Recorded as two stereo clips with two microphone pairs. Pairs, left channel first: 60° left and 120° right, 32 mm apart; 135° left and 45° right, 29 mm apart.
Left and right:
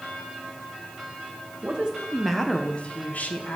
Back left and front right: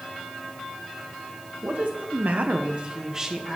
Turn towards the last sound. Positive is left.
turn(degrees=35)